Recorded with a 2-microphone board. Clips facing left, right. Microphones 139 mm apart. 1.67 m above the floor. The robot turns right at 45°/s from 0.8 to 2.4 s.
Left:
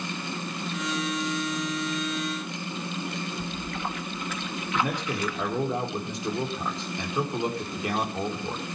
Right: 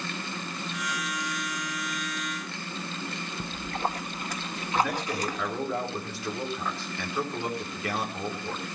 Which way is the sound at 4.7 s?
20° left (ahead or behind).